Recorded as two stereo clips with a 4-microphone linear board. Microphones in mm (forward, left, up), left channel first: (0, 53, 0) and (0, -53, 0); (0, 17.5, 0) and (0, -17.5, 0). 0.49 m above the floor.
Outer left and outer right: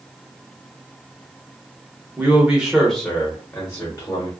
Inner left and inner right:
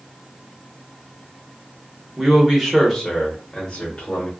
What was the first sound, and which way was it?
A man speaking, 20° right (ahead or behind).